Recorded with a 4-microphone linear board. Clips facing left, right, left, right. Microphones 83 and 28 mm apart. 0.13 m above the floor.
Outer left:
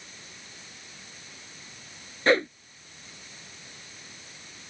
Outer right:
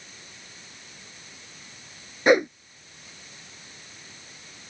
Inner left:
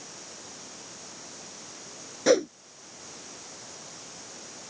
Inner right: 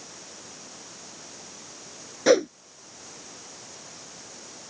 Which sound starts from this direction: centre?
A whoosh, at 2.3 s.